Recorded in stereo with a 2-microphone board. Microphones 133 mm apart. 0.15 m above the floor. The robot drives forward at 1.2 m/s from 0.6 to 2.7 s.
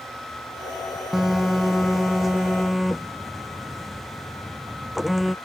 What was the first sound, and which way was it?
A phone buzzing, centre (ahead or behind).